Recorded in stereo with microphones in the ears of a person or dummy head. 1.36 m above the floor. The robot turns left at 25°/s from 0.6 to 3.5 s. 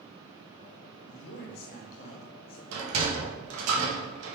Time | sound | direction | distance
1.1 | a man speaking | 70° left | 1.8 m
2.7 | a sliding door | 85° right | 1.6 m